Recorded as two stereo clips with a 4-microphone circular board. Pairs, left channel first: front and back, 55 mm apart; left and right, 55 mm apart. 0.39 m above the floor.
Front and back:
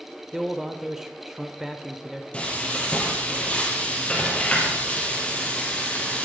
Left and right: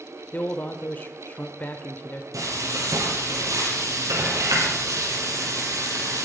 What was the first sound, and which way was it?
A man speaking, 105° left.